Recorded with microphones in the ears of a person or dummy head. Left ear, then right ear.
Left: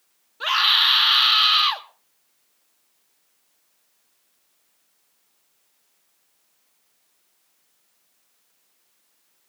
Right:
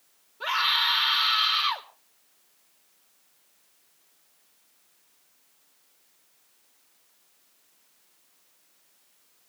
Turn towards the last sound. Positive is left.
turn(degrees=40)  # may be behind; listen again after turning